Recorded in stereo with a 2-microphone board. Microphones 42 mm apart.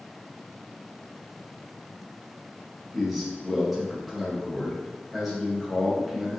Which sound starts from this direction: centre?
A man speaking, at 2.9 s.